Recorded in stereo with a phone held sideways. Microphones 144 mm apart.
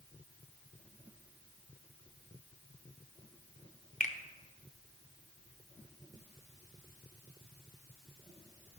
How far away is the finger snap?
About 0.7 m.